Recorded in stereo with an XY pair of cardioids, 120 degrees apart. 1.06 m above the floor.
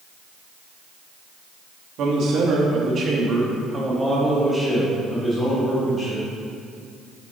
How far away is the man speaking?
About 1.3 m.